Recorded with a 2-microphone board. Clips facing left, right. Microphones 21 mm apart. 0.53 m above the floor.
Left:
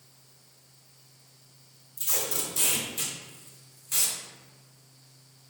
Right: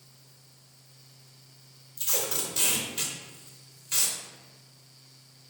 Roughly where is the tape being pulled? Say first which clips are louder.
Right 1 dB; right.